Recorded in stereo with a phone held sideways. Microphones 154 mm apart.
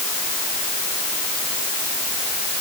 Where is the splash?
I don't hear a splash.